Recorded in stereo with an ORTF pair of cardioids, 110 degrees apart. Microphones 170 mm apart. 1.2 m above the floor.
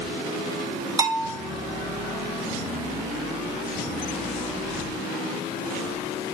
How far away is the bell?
About 1.3 m.